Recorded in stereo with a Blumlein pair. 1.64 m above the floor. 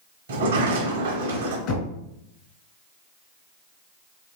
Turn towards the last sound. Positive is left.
turn(degrees=40)